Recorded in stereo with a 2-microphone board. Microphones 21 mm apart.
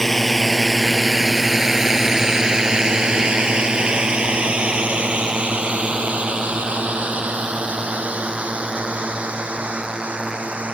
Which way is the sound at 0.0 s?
15° left (ahead or behind).